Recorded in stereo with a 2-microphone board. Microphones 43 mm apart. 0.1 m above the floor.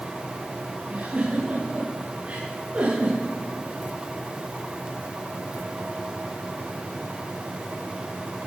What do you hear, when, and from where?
0.9 s a giggle: 30° right (ahead or behind), 9 m